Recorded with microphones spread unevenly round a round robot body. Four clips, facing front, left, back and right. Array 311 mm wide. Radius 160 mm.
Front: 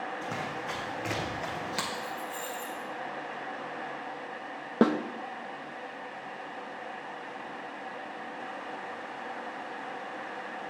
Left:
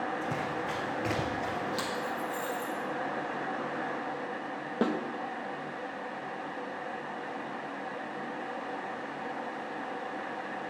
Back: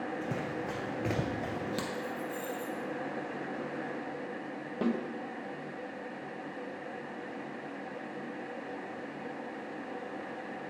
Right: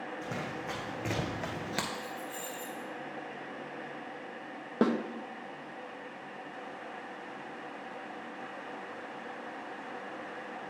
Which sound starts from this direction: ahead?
A snare drum, at 4.8 s.